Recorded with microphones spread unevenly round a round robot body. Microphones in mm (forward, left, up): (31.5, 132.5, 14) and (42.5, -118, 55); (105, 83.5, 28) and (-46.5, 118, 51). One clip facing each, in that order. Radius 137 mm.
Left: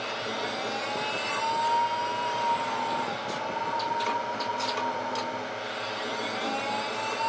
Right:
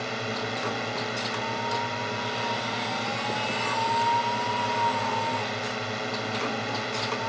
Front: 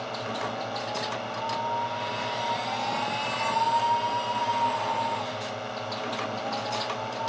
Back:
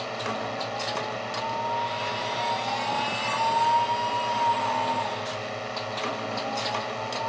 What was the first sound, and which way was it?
A drone, 105° right.